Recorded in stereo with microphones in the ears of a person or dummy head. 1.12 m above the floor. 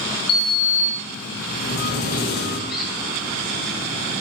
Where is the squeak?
Centre (ahead or behind), 3.5 m.